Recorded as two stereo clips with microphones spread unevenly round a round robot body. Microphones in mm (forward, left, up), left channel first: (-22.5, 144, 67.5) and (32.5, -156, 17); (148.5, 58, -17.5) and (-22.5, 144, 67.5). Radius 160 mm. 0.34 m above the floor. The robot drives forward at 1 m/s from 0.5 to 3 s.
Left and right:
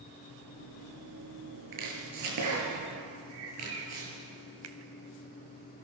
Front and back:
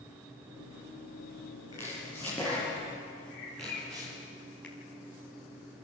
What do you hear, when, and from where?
1.7 s chopping: 100° right, 6.5 m; by 4.1 s 110° right, 7 m
3.3 s a bird: 35° right, 6.5 m
4.6 s a finger snap: 95° right, 2.5 m